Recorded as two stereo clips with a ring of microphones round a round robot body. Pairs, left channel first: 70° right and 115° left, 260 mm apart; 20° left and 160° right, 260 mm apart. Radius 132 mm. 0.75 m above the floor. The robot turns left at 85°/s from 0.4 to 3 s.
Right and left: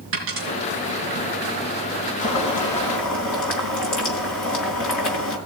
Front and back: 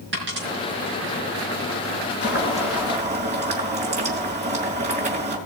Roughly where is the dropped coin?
Behind left.